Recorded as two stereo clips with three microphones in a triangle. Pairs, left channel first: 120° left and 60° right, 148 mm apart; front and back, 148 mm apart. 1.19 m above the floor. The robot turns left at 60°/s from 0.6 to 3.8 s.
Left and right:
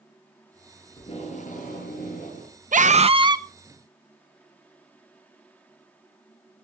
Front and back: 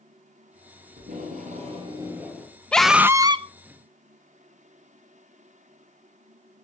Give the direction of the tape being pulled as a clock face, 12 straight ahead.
6 o'clock.